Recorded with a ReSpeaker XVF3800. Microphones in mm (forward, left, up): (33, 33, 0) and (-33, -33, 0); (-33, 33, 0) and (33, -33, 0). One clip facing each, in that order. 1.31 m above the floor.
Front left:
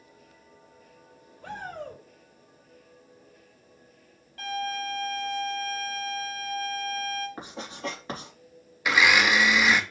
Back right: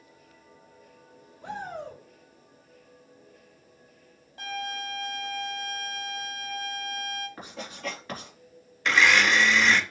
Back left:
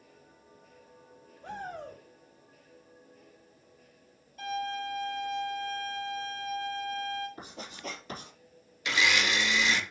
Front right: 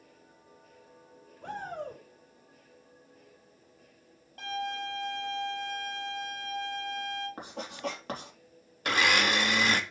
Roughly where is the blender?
Ahead right.